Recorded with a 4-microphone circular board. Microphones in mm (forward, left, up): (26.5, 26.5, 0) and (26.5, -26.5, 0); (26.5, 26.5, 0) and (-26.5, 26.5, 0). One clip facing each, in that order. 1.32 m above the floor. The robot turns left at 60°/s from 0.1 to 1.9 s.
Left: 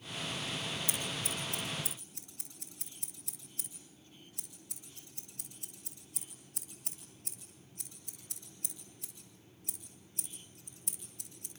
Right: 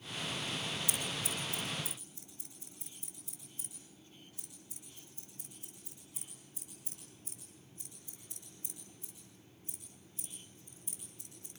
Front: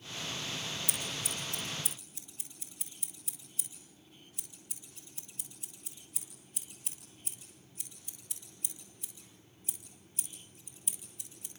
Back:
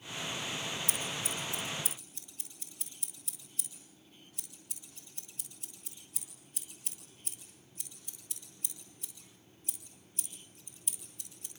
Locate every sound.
0.9 s scissors: 150° left, 8.5 m; by 11.5 s 90° left, 8.5 m